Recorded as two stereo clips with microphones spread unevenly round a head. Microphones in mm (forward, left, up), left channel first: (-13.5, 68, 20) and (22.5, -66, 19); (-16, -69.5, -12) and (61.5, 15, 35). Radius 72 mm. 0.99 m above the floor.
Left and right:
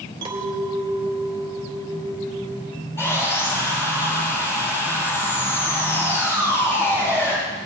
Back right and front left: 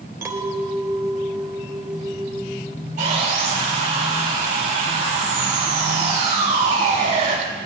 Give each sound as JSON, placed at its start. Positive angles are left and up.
{"t": 0.2, "sound": "a clink", "azimuth_deg": -15, "distance_m": 2.5}
{"t": 3.0, "sound": "sawing", "azimuth_deg": 30, "distance_m": 8.0}